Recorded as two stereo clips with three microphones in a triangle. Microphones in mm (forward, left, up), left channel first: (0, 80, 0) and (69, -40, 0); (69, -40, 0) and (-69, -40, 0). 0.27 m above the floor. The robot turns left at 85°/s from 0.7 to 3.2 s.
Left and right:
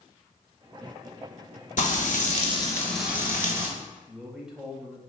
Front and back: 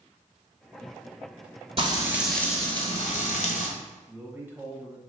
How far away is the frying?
About 1.1 m.